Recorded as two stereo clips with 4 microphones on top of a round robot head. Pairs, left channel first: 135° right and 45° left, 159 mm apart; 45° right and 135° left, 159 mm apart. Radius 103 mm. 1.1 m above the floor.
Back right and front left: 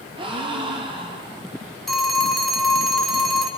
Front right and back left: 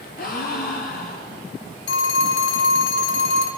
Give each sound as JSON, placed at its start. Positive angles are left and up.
{"t": 0.2, "sound": "a gasp", "azimuth_deg": -15, "distance_m": 2.0}
{"t": 1.9, "sound": "a phone ringing", "azimuth_deg": -45, "distance_m": 1.5}